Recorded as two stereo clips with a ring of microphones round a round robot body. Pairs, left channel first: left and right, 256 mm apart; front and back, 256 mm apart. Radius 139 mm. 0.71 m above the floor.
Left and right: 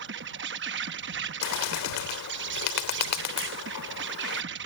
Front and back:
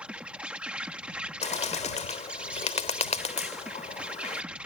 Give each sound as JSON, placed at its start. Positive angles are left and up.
{"t": 0.0, "sound": "an insect", "azimuth_deg": -95}
{"t": 1.4, "sound": "a bird", "azimuth_deg": 65}